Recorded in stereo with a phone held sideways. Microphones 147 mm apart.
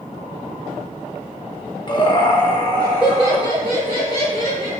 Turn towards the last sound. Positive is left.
turn(degrees=30)  # may be behind; listen again after turning